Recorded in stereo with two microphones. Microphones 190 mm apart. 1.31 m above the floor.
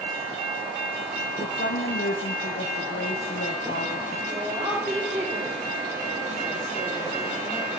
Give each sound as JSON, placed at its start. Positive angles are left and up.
{"t": 1.4, "sound": "a woman speaking", "side_deg": 80, "distance_m": 0.8}
{"t": 4.3, "sound": "a woman speaking", "side_deg": -30, "distance_m": 4.5}